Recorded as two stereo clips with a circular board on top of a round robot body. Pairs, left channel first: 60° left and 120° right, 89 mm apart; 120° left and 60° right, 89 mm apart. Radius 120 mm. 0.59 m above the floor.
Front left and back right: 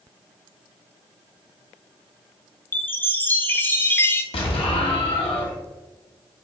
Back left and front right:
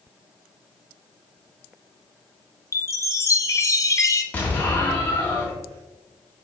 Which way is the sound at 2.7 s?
110° left.